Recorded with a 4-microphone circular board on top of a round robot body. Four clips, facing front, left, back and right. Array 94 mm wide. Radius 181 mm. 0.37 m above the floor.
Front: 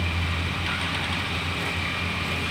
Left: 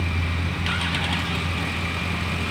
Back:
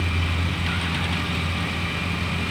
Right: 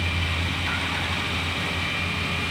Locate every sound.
Only background noise.